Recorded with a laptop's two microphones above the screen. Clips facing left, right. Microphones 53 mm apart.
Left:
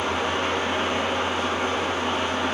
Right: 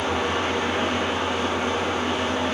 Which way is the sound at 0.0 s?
20° left (ahead or behind).